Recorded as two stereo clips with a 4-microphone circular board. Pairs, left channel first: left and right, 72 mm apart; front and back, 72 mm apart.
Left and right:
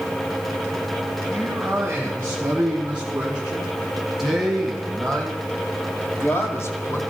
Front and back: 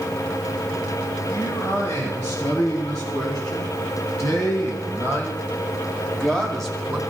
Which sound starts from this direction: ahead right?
A man speaking, at 1.3 s.